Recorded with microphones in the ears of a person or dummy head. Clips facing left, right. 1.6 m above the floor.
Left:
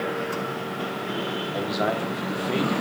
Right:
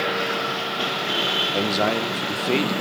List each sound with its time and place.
1.5 s a man speaking: 40° right (ahead or behind), 1.2 m